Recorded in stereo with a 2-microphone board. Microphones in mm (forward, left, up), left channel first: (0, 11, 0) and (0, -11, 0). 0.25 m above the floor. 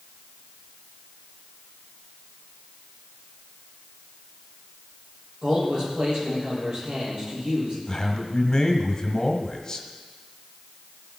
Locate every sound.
5.4 s a man speaking: 40° right (ahead or behind), 7.5 m
7.9 s a man speaking: 30° left (ahead or behind), 1.7 m